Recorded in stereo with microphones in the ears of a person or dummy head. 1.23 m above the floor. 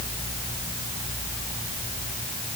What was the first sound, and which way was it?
Only background noise.